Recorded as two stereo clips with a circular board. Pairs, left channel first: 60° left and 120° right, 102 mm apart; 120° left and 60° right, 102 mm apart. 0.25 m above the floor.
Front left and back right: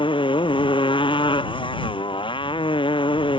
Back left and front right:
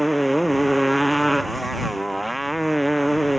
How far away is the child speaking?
I don't hear a child speaking.